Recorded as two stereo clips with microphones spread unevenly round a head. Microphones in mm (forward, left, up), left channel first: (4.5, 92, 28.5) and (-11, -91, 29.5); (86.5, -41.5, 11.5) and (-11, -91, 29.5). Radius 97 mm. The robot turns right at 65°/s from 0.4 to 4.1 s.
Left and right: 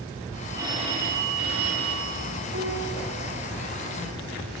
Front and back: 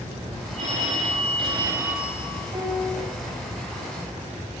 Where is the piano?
110° right, 4.5 m; by 3.0 s 80° right, 4.5 m.